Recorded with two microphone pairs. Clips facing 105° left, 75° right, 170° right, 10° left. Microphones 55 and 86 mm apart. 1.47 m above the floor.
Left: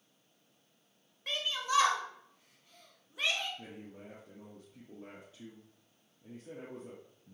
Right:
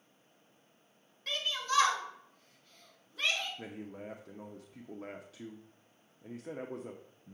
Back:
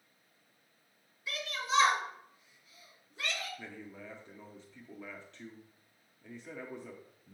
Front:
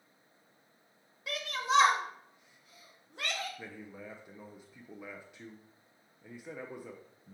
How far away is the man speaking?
About 0.7 m.